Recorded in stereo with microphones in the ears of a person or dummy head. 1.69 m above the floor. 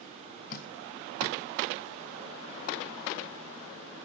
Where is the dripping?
50° left (ahead or behind), 1.4 m.